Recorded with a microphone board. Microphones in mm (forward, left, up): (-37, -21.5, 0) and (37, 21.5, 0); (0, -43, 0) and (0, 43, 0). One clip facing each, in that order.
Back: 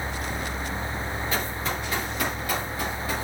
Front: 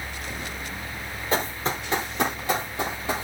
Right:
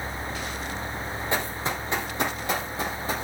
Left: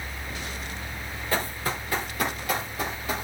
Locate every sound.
1.3 s running footsteps: 20° right, 2.5 m; by 3.2 s 35° right, 3.5 m